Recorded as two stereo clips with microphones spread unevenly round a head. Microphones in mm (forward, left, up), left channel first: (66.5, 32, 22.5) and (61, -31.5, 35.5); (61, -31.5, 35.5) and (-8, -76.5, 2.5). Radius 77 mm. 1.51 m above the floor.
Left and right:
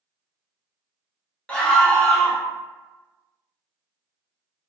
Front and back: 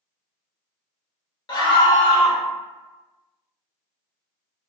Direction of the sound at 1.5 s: 5° left.